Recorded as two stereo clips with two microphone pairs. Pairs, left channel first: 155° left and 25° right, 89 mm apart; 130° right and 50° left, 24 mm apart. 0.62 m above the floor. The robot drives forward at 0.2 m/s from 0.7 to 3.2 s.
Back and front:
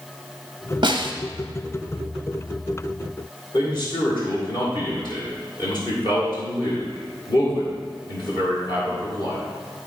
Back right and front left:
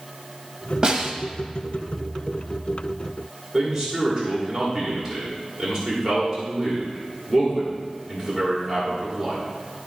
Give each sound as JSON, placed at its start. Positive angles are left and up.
{"t": 0.8, "sound": "a snare drum", "azimuth_deg": 0, "distance_m": 0.9}
{"t": 3.5, "sound": "a man speaking", "azimuth_deg": 130, "distance_m": 2.0}